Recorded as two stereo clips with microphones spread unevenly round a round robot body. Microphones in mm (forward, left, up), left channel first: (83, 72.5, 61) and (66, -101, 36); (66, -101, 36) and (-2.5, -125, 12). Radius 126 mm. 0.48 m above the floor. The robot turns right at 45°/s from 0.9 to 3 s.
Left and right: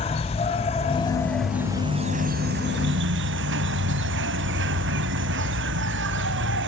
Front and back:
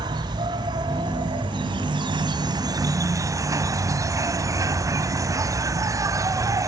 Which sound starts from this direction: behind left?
An insect, at 0.0 s.